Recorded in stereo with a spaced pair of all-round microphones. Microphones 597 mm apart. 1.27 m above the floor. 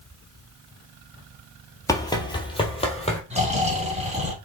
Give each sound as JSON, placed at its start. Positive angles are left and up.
{"t": 1.9, "sound": "running footsteps", "side_deg": 5, "distance_m": 2.0}
{"t": 3.3, "sound": "snoring", "side_deg": -10, "distance_m": 4.0}